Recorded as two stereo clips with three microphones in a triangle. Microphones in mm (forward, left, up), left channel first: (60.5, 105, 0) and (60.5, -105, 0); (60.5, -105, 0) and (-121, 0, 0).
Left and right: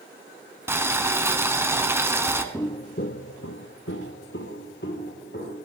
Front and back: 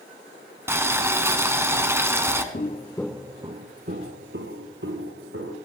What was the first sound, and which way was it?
Boiling, 150° right.